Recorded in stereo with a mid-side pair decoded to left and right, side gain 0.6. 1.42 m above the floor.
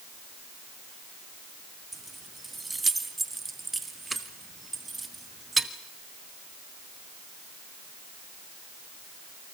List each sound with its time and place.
1.9 s keys jangling: 15° right, 1.9 m